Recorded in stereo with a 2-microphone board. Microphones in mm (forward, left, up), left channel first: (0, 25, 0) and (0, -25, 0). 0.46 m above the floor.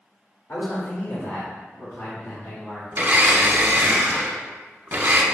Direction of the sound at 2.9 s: 35° right (ahead or behind).